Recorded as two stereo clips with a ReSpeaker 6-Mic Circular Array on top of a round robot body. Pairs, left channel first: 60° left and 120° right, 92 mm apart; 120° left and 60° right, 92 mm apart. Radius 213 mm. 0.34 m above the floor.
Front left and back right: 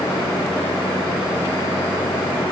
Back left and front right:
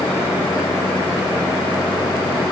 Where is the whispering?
I don't hear whispering.